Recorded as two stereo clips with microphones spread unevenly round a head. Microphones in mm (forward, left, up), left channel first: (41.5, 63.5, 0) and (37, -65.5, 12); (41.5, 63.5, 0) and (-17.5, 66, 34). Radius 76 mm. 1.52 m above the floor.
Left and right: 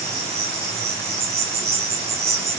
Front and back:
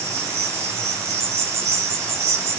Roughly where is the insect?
Behind.